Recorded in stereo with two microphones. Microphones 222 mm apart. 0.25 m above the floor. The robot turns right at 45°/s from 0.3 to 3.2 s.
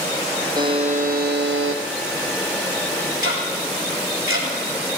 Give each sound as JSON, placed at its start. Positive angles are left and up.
{"t": 0.6, "sound": "a buzzer", "azimuth_deg": -165, "distance_m": 1.6}
{"t": 3.2, "sound": "ticking", "side_deg": -70, "distance_m": 3.5}